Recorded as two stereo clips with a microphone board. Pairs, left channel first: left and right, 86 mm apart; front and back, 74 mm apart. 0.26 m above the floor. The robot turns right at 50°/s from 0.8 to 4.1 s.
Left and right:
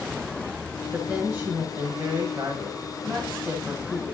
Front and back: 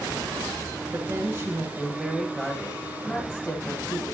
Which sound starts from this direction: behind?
A woman speaking, at 0.9 s.